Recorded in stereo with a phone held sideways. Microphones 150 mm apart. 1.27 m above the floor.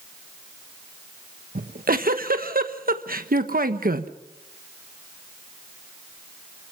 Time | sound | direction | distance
1.6 | a giggle | 80° right | 1.2 m